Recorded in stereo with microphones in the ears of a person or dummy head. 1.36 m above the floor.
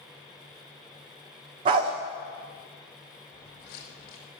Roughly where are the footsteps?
Left.